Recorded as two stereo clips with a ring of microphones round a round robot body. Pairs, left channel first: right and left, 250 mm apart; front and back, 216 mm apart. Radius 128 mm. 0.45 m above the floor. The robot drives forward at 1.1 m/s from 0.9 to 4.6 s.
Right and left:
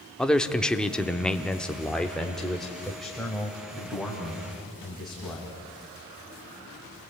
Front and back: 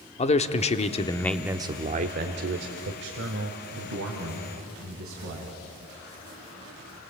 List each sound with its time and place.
0.2 s a man speaking: 5° right, 1.0 m; by 5.5 s straight behind, 3.5 m